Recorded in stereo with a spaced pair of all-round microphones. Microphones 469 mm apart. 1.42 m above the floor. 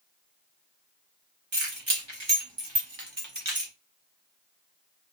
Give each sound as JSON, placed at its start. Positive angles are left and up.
{"t": 1.5, "sound": "keys jangling", "side_deg": -70, "distance_m": 1.4}